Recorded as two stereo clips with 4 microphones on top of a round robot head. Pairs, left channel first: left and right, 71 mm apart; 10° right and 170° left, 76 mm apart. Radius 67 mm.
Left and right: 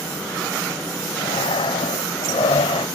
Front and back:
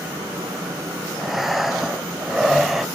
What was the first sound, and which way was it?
Breathing, 85° left.